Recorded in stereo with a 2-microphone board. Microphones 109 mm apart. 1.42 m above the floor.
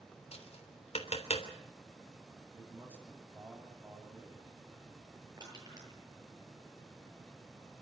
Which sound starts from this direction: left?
Tapping, at 0.3 s.